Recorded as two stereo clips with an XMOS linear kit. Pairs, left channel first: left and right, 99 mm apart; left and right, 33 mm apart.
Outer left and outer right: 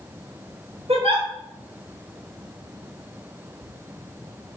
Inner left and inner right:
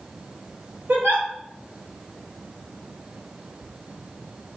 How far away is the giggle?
About 3 m.